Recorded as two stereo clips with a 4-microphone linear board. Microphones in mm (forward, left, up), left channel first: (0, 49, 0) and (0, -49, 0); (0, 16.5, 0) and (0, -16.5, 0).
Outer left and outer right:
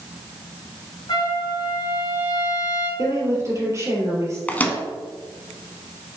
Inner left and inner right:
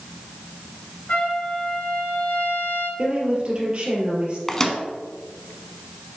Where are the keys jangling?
No keys jangling in this recording.